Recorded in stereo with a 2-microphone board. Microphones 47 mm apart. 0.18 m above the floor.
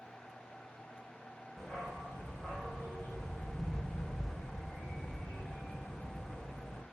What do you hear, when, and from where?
1.6 s a dog barking: centre (ahead or behind), 3.5 m